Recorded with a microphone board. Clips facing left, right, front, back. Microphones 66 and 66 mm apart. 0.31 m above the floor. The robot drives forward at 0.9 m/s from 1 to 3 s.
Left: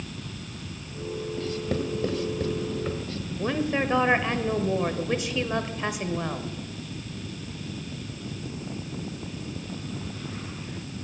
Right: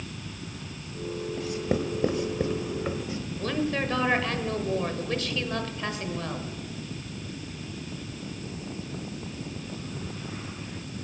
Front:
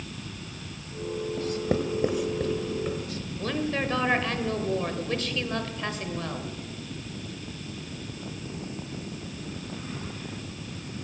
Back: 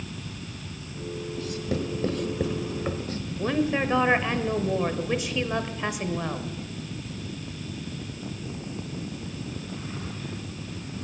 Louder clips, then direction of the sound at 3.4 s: Left 2 dB, back 4 dB; 135° left.